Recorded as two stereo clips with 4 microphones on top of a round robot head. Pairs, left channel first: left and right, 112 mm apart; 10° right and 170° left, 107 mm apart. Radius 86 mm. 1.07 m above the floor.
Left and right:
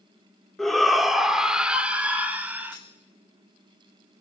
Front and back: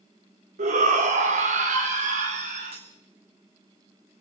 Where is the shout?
175° left, 2.5 m; by 2.8 s 165° right, 3.5 m.